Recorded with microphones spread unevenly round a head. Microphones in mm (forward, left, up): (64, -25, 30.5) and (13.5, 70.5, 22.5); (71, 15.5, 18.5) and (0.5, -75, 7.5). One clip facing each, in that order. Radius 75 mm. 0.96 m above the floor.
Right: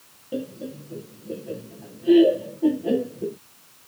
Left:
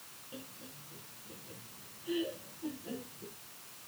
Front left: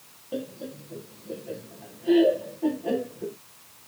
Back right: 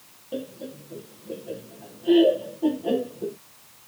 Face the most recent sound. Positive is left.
turn(degrees=-50)